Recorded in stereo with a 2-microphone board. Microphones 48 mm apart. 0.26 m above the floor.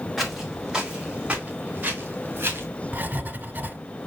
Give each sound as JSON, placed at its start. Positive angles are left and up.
{"t": 0.2, "sound": "footsteps", "side_deg": 0, "distance_m": 3.5}
{"t": 2.9, "sound": "writing", "side_deg": -40, "distance_m": 1.3}